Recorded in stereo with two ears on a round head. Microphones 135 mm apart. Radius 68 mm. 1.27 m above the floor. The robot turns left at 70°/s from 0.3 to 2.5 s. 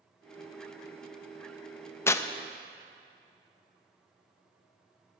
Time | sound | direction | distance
2.1 | tearing paper | 15° left (ahead or behind) | 0.5 m